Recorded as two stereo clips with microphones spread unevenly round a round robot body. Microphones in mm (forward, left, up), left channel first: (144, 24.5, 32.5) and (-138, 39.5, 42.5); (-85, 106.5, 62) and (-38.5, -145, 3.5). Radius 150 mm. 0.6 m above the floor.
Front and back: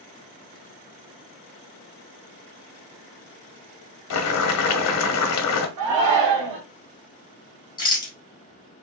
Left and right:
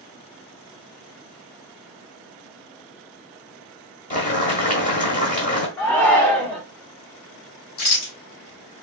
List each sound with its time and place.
4.1 s boiling: 35° left, 1.0 m
5.8 s a shout: 175° right, 1.2 m
7.8 s a rattle: 70° left, 2.0 m